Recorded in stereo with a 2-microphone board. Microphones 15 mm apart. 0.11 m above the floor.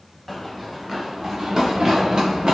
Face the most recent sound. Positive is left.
turn(degrees=-60)  # may be behind; listen again after turning